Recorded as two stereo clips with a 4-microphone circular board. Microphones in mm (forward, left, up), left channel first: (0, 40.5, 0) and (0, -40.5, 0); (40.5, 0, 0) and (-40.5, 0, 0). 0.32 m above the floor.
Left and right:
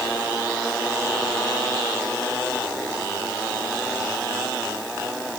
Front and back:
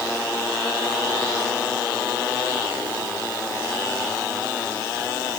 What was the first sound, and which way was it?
Only background noise.